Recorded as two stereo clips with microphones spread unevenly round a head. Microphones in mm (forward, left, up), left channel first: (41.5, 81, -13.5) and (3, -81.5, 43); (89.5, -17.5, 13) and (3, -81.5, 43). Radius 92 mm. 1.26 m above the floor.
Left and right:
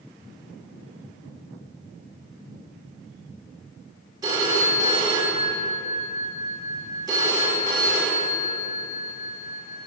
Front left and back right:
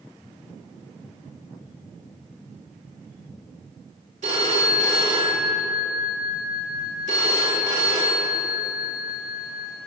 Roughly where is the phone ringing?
Behind.